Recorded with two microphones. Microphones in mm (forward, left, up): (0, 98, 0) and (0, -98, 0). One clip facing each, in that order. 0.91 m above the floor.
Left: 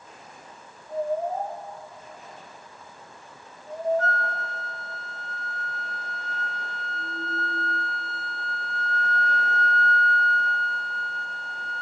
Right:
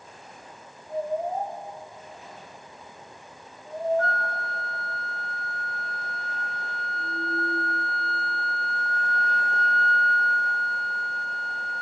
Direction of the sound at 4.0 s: 40° left (ahead or behind).